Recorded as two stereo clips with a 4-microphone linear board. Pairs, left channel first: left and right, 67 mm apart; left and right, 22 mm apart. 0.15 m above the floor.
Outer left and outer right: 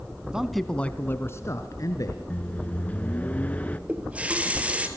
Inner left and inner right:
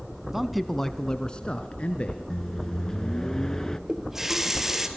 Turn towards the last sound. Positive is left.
turn(degrees=-20)  # may be behind; listen again after turning